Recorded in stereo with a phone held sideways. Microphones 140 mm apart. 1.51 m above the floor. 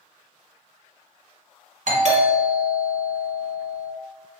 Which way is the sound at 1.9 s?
60° right (ahead or behind).